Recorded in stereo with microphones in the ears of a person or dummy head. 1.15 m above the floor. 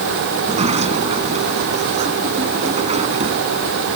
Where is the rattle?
No rattle in this recording.